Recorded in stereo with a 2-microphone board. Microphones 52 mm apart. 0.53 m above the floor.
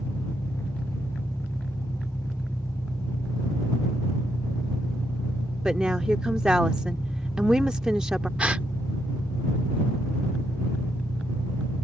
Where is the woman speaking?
15° right (ahead or behind).